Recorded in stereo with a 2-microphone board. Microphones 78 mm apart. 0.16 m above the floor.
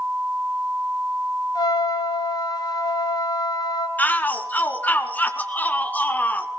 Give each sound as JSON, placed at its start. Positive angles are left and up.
{"t": 1.6, "sound": "a trumpet", "side_deg": 60, "distance_m": 2.5}
{"t": 4.0, "sound": "a shout", "side_deg": 20, "distance_m": 1.9}